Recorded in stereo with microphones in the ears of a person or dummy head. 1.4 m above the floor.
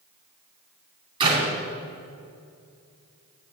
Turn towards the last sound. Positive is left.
turn(degrees=-30)  # may be behind; listen again after turning